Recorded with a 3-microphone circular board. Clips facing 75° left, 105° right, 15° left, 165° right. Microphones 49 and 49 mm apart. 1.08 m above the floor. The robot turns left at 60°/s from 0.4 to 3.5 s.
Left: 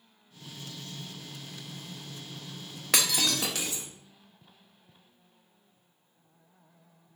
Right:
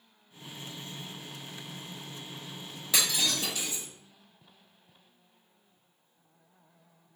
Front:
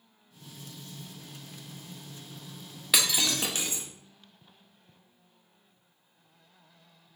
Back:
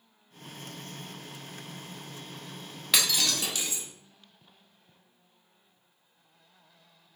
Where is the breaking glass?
100° left, 0.7 m; by 3.8 s 70° left, 0.7 m.